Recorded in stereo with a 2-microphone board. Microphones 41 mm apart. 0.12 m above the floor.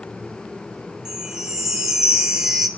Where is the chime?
15° right (ahead or behind), 0.9 m.